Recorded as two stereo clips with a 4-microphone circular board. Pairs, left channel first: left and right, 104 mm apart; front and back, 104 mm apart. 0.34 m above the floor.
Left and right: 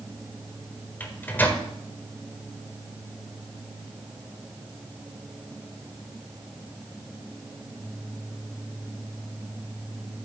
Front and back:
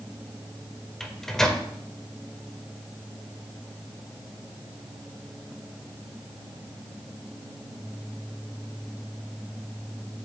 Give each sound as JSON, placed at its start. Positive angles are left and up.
{"t": 1.0, "sound": "a microwave", "azimuth_deg": 75, "distance_m": 1.1}